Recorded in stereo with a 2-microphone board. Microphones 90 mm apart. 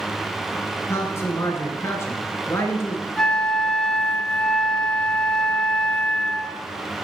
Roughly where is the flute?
Centre.